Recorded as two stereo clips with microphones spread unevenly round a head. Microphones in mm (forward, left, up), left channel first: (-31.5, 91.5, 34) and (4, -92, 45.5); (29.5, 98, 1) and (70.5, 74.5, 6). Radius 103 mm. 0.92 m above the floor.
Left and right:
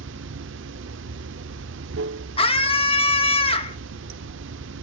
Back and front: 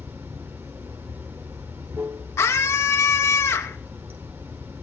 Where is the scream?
160° left, 2 m.